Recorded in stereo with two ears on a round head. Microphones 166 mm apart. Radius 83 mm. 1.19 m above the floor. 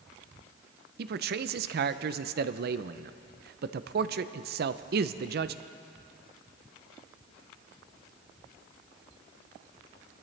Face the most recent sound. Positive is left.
turn(degrees=-55)  # may be behind; listen again after turning